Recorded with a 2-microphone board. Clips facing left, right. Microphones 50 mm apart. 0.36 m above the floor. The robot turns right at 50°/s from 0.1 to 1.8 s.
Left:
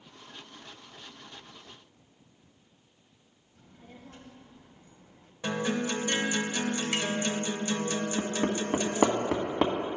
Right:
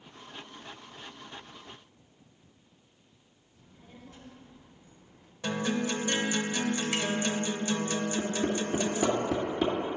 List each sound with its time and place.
3.5 s a child speaking: 55° left (ahead or behind), 1.5 m
5.4 s a guitar: 20° left (ahead or behind), 0.7 m
8.2 s hammering: 75° left (ahead or behind), 1.1 m